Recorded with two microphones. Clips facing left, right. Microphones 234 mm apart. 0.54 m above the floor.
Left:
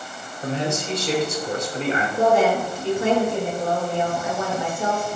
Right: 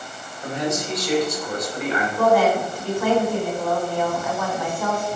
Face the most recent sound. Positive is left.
turn(degrees=25)  # may be behind; listen again after turning